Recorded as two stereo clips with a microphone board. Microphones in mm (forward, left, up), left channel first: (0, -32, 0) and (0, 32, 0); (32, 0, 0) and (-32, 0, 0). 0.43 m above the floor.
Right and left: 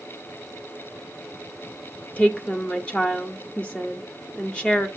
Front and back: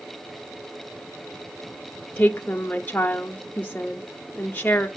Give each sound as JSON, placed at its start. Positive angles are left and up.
{"t": 2.2, "sound": "a woman speaking", "azimuth_deg": -35, "distance_m": 0.8}